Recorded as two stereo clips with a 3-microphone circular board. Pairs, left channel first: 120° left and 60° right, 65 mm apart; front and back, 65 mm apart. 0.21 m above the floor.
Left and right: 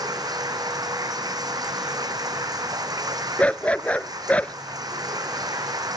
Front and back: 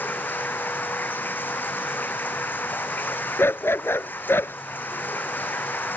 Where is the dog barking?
50° left.